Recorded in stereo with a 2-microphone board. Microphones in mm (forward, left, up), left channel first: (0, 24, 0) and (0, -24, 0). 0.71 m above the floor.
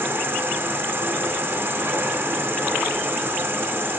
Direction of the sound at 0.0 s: 50° right (ahead or behind).